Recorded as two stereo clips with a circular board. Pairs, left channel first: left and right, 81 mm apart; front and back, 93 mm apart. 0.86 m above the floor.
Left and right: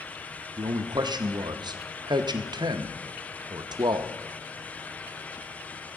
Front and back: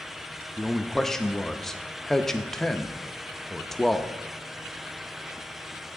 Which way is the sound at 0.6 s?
85° right.